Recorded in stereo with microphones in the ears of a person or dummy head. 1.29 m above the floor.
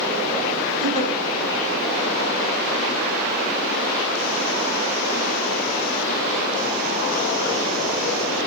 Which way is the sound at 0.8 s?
40° left (ahead or behind).